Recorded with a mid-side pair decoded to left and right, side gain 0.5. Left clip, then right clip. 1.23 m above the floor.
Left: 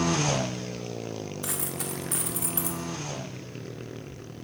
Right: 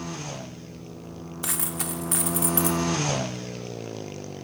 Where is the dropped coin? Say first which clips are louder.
Right 6 dB; 30° right, 1.6 m.